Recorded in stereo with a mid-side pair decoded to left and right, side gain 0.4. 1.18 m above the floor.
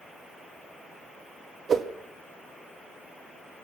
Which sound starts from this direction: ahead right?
A whoosh, at 1.7 s.